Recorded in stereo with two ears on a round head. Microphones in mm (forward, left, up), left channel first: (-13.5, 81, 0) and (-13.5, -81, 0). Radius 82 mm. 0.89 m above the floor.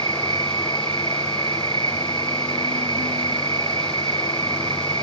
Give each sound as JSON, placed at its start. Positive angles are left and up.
{"t": 0.0, "sound": "an insect", "side_deg": -30}